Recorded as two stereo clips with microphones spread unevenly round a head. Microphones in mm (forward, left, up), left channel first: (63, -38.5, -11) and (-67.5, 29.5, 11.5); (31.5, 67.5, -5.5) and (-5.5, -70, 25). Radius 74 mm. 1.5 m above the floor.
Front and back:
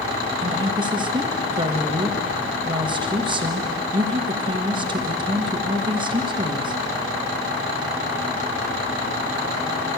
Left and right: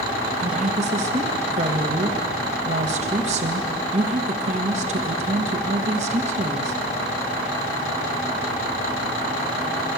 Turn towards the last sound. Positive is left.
turn(degrees=-150)